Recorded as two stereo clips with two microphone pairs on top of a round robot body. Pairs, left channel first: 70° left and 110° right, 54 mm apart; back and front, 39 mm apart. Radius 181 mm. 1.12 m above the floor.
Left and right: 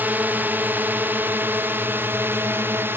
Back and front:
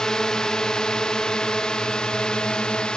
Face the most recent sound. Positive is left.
turn(degrees=-125)